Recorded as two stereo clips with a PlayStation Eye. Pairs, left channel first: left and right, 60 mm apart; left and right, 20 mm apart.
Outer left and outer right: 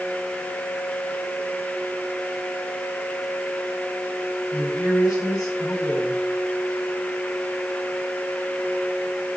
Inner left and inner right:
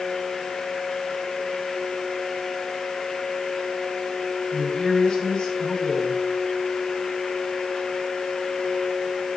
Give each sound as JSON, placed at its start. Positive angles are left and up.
{"t": 4.5, "sound": "a woman speaking", "side_deg": 70, "distance_m": 9.0}